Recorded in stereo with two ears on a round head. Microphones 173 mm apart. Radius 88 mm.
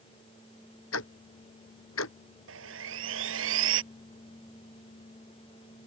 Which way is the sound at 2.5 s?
80° right.